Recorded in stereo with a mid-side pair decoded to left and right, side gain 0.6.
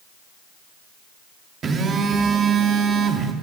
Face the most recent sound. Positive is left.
turn(degrees=-40)